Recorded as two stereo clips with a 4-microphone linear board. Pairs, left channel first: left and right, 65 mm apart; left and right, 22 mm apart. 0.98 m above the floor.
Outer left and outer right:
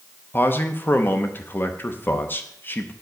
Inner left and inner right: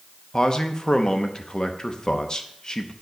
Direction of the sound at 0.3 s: 30° left (ahead or behind).